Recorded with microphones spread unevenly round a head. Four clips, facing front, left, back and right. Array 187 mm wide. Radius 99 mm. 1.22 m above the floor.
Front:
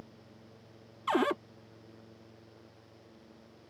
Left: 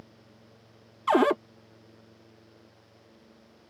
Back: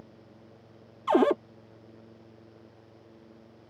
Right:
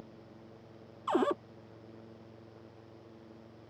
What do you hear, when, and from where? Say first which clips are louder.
1.1 s a cupboard door: left 8 dB, back 7 dB; 145° left